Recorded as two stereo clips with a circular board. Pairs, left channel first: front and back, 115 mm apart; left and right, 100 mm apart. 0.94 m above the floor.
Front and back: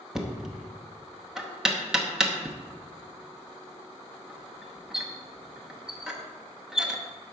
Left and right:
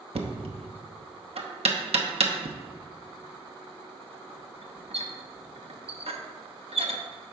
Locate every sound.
0.1 s knocking: 95° right, 0.9 m